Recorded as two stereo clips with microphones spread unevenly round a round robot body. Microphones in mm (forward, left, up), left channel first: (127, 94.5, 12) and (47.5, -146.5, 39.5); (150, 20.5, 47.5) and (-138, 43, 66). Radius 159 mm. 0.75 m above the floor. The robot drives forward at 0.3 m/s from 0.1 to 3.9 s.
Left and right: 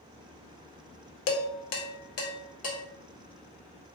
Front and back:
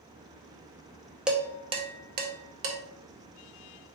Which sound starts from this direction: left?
Dishes clattering, at 1.3 s.